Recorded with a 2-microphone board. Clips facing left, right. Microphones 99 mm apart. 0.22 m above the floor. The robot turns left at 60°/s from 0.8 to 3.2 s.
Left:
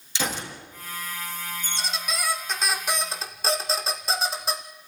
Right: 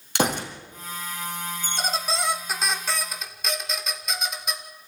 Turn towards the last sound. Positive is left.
turn(degrees=145)